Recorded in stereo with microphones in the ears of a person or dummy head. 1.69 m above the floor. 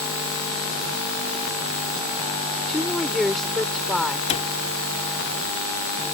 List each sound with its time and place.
2.7 s a woman speaking: 5° left (ahead or behind)
4.3 s a cupboard door: 40° left (ahead or behind)